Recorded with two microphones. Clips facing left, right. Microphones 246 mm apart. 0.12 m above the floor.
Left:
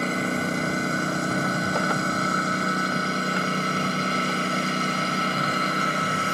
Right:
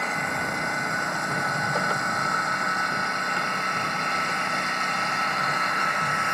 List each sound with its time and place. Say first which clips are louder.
0.0 s a lawn mower: left 7 dB; 35° left (ahead or behind)